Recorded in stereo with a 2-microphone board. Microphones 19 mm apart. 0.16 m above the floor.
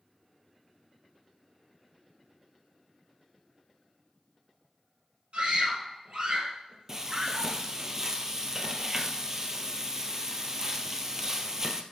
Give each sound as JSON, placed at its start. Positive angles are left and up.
{"t": 5.3, "sound": "a scream", "side_deg": -70, "distance_m": 4.0}
{"t": 6.9, "sound": "frying", "side_deg": -25, "distance_m": 1.2}